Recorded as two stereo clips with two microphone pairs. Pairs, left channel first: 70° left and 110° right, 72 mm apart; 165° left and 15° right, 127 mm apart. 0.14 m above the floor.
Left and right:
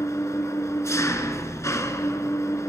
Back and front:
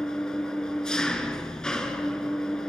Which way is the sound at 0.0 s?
80° left.